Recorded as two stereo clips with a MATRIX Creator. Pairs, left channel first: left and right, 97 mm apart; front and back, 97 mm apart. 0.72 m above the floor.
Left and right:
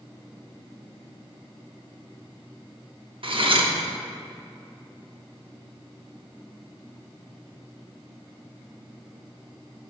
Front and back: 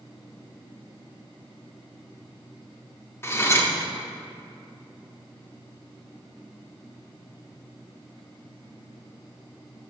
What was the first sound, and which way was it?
Cutlery clinking, 65° right.